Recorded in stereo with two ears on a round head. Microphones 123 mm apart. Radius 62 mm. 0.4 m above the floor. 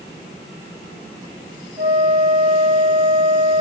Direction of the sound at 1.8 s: 30° right (ahead or behind).